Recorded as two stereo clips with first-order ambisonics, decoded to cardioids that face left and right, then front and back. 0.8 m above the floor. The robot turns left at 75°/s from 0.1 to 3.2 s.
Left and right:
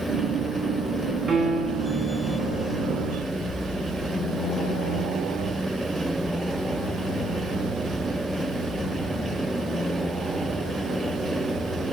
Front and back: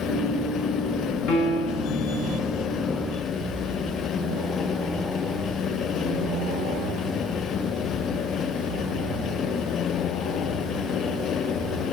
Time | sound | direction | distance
1.3 | a piano | 10° right | 1.2 m